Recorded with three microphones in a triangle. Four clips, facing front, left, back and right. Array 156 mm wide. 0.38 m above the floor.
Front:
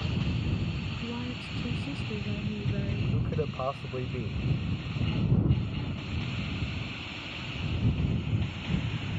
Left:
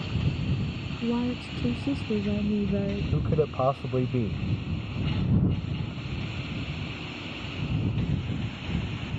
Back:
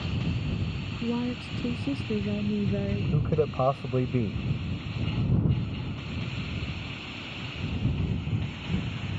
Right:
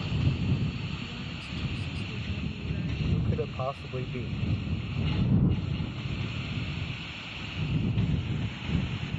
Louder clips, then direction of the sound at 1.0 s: Left 12 dB, back 10 dB; 120° left.